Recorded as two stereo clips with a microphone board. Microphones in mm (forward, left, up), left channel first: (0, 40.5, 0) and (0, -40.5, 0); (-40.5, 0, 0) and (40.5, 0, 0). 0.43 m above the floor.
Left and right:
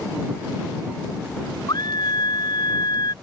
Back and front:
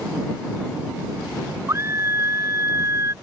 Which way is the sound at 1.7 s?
55° left.